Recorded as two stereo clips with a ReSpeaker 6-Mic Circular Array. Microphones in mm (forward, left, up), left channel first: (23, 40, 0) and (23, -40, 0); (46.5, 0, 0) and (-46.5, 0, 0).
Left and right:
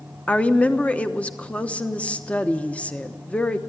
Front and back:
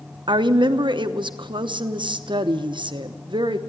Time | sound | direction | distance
0.3 | a woman speaking | 160° left | 0.9 m